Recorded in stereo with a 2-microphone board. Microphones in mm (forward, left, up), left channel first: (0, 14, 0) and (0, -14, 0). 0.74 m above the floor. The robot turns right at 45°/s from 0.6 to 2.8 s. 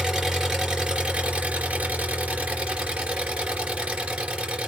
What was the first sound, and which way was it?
An engine running, 145° right.